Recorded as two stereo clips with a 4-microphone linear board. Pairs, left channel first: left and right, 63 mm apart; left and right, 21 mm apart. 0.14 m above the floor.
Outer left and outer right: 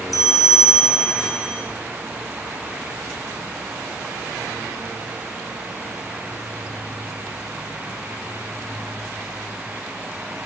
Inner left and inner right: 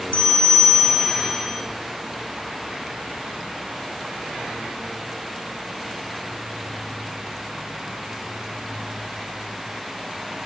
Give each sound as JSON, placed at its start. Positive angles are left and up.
{"t": 0.1, "sound": "a bell", "side_deg": 65, "distance_m": 1.3}